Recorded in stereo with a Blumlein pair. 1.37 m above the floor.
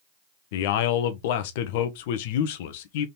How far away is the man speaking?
About 0.9 m.